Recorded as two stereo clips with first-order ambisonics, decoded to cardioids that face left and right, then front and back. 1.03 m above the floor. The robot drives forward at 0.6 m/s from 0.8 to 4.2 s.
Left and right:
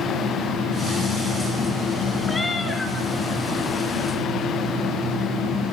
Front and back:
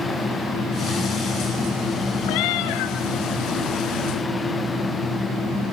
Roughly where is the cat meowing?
Ahead.